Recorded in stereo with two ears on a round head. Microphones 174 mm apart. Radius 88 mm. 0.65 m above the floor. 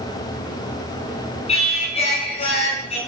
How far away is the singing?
About 6 m.